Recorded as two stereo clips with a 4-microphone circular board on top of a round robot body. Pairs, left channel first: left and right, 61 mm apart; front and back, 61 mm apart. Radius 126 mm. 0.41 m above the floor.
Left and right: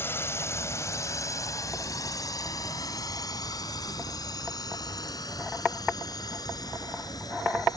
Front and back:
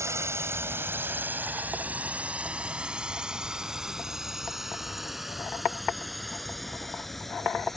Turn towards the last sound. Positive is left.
turn(degrees=85)